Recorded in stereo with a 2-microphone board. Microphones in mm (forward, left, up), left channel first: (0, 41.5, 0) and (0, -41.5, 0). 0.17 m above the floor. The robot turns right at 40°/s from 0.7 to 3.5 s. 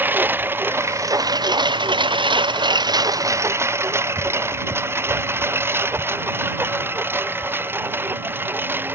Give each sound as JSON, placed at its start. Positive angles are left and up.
{"t": 0.0, "sound": "a lawn mower", "side_deg": -25}